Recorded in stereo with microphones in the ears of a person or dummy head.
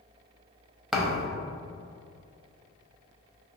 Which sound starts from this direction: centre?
A thud, at 0.9 s.